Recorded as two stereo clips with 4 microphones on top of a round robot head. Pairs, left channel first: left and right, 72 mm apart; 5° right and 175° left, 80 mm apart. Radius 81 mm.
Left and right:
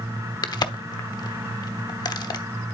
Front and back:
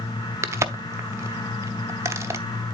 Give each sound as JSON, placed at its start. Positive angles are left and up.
{"t": 0.4, "sound": "a crack", "azimuth_deg": 115, "distance_m": 0.8}